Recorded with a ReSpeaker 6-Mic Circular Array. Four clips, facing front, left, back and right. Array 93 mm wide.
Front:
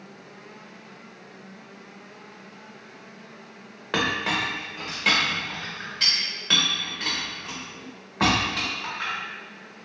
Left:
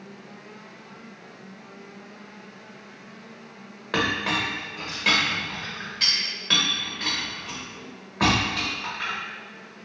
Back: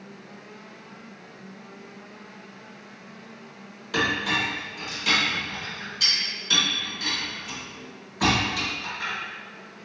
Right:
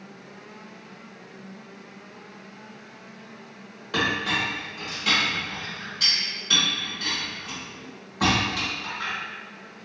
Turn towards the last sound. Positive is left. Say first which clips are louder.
# left 1 dB, even
turn(degrees=35)